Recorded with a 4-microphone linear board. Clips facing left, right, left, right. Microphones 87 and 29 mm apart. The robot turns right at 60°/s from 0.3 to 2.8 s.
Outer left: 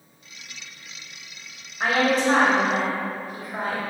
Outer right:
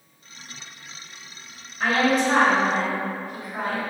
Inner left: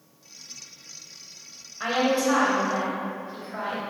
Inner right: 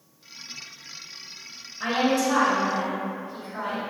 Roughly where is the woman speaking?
Ahead left.